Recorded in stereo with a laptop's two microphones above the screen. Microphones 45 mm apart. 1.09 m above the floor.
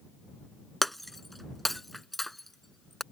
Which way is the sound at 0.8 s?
5° left (ahead or behind).